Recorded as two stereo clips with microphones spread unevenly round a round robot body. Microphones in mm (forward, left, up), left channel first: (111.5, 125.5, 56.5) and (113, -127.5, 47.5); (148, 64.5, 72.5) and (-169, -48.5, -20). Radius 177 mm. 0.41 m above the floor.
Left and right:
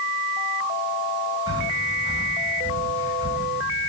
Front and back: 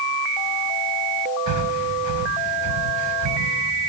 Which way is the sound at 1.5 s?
165° right.